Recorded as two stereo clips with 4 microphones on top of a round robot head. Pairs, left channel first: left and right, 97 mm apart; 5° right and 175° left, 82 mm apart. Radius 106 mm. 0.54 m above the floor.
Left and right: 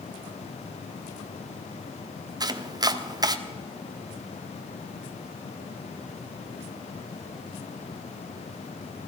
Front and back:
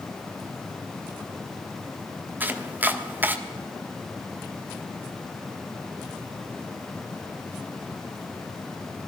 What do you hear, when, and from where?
2.4 s chopping: 125° right, 1.2 m